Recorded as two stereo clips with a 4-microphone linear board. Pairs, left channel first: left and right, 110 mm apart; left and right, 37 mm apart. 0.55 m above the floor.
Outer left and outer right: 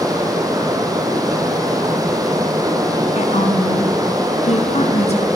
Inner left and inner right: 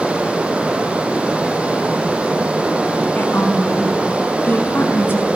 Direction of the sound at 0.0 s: 35° right (ahead or behind).